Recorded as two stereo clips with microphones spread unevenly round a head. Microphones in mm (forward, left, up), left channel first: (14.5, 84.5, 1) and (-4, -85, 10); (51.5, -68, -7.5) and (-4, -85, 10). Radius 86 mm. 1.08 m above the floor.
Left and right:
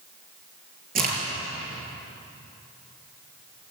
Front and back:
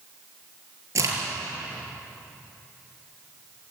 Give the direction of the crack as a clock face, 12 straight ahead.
5 o'clock.